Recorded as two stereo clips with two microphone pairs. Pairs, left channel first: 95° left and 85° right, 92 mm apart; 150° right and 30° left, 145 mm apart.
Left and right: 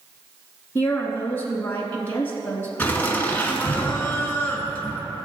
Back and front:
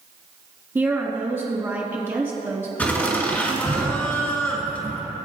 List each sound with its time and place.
0.8 s a woman speaking: 75° left, 1.1 m
2.8 s laughter: 145° left, 1.7 m